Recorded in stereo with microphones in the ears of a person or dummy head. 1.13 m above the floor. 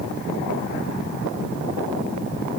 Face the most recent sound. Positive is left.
No sound to turn to.